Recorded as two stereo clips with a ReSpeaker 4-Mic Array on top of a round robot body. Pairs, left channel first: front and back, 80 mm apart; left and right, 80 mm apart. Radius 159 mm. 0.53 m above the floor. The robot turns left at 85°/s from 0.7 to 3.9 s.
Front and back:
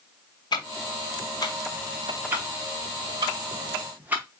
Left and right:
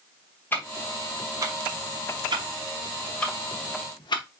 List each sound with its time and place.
0.5 s ticking: 25° left, 1.1 m; by 4.2 s 110° left, 1.1 m